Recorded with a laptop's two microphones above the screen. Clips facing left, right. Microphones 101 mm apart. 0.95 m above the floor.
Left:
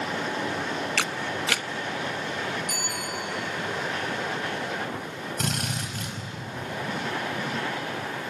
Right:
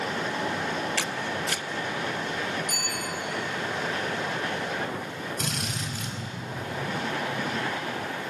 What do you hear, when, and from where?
1.0 s a camera shutter: 80° left, 0.6 m
2.7 s a bicycle bell: 60° left (ahead or behind), 10 m
5.4 s a drill: 55° left (ahead or behind), 5 m